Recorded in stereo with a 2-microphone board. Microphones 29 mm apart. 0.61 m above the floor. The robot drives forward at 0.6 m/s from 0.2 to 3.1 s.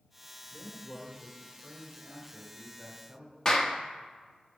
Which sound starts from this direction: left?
A clap, at 3.5 s.